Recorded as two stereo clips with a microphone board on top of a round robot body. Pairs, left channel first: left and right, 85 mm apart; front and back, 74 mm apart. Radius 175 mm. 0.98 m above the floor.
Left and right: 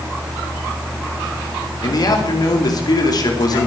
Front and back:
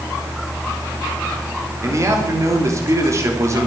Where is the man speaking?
130° left, 3 m.